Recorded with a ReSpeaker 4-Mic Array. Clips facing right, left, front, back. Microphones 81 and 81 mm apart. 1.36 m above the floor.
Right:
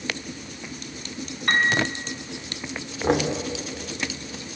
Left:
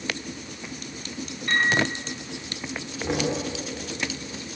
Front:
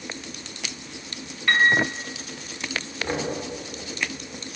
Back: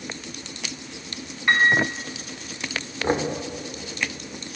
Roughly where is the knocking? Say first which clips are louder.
Right 4 dB, back 5 dB; behind right.